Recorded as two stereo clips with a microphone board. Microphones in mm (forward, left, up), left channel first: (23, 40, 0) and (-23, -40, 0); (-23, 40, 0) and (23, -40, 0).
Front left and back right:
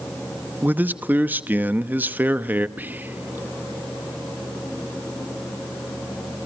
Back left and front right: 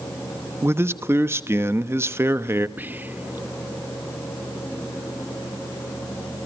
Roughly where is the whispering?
Right.